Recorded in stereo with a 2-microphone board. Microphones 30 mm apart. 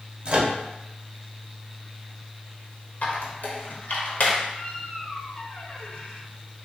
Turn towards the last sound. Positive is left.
turn(degrees=60)  # may be behind; listen again after turning